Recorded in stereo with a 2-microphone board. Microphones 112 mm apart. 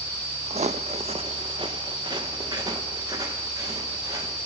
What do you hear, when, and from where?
0.5 s footsteps: 60° right (ahead or behind), 0.5 m; by 4.4 s 30° right (ahead or behind), 4.5 m